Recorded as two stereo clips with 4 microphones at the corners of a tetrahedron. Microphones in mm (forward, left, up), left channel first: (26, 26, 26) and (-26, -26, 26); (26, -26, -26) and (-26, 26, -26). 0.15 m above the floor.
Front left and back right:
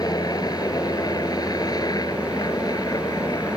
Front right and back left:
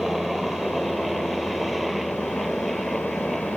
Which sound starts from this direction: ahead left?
A helicopter, at 0.0 s.